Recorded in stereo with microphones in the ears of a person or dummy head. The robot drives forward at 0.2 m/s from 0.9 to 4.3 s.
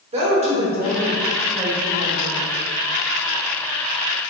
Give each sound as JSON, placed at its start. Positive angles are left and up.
{"t": 0.1, "sound": "a woman speaking", "side_deg": -35, "distance_m": 1.0}